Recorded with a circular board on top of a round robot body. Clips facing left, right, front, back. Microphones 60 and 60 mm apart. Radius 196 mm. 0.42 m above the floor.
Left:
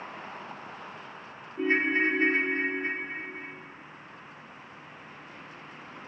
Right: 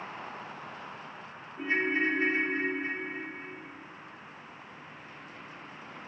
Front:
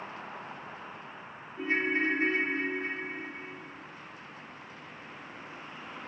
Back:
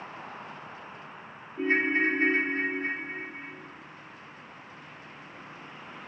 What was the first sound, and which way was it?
A ringtone, 135° left.